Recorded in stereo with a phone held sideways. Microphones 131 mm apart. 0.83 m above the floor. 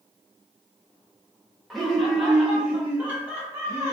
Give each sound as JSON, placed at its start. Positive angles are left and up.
{"t": 1.7, "sound": "laughter", "side_deg": 0, "distance_m": 1.3}